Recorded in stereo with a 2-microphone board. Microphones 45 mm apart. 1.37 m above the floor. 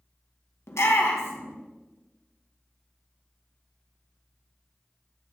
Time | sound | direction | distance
0.7 | a shout | 80° left | 1.7 m